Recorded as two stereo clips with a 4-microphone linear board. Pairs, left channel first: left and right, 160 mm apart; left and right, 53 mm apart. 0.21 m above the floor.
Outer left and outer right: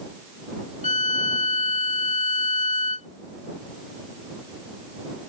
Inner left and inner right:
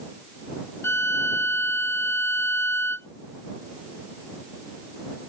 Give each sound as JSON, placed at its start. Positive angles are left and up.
{"t": 0.8, "sound": "a violin", "side_deg": 50}